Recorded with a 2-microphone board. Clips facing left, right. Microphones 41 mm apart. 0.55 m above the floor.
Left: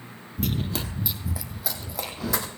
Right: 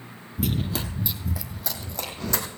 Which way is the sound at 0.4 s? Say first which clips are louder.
Right 1 dB; 5° right (ahead or behind).